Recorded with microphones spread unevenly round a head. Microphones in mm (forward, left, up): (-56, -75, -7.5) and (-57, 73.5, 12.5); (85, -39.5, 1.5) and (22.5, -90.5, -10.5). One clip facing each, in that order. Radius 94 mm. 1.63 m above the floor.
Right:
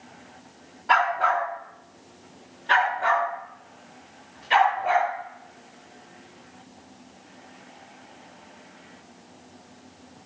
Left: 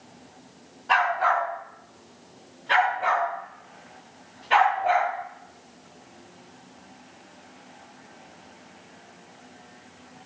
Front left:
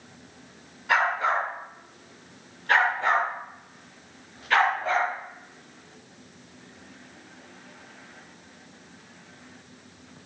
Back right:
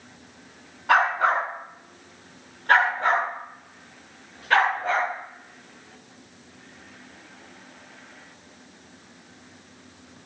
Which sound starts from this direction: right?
A dog barking, at 0.9 s.